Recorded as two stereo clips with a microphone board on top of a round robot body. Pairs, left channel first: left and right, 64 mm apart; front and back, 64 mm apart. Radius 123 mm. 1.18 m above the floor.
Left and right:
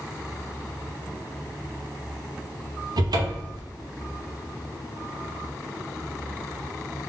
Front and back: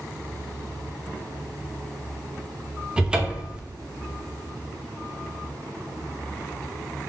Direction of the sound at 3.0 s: 105° right.